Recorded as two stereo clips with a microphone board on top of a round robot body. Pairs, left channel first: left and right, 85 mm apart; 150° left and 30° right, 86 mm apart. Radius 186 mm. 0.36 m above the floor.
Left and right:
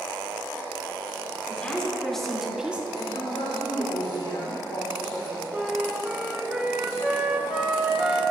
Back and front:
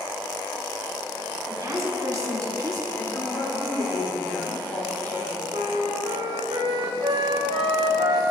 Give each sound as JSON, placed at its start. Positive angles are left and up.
{"t": 1.5, "sound": "a woman speaking", "azimuth_deg": 15, "distance_m": 3.0}
{"t": 3.0, "sound": "a woman speaking", "azimuth_deg": 85, "distance_m": 3.0}
{"t": 5.5, "sound": "a flute", "azimuth_deg": -10, "distance_m": 1.3}